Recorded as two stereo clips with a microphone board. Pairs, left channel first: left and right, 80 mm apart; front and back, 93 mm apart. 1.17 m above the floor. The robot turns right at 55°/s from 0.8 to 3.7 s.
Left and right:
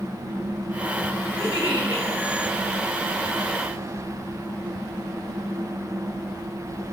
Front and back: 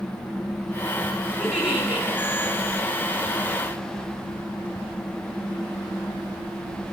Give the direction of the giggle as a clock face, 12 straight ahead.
9 o'clock.